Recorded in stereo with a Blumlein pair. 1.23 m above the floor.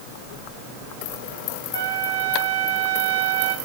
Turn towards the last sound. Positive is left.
turn(degrees=-60)